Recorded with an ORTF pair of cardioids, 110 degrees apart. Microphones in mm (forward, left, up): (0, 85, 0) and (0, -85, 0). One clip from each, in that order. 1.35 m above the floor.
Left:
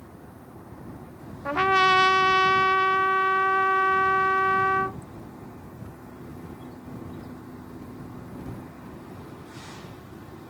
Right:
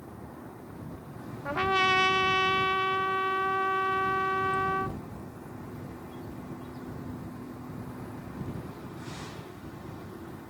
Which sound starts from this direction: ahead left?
A trumpet, at 1.4 s.